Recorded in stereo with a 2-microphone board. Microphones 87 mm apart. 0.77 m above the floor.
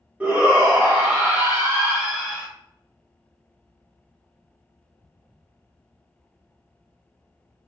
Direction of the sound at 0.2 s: 15° right (ahead or behind).